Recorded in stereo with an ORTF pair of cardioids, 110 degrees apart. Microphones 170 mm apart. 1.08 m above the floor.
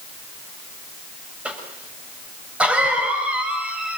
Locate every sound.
1.4 s a cough: 5° right, 5.5 m